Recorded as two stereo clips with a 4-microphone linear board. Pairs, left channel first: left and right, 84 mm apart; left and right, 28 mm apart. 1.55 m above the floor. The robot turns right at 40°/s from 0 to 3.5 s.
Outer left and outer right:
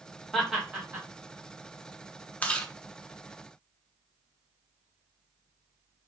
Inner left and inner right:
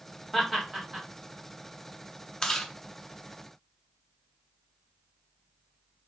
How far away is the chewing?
About 0.5 m.